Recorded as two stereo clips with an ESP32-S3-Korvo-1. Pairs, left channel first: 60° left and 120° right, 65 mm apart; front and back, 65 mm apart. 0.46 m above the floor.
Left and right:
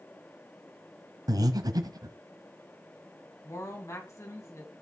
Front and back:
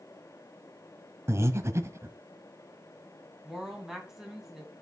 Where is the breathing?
135° right, 0.9 m.